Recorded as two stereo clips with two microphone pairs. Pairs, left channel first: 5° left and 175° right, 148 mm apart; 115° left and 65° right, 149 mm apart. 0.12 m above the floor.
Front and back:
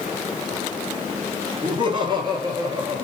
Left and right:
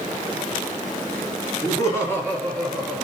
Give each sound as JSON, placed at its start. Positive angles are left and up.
{"t": 1.6, "sound": "laughter", "azimuth_deg": 165, "distance_m": 1.6}